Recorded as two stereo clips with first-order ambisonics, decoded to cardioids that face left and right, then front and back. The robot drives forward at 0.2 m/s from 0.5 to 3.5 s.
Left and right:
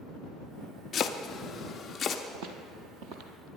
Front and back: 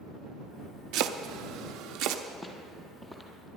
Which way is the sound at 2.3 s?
90° right.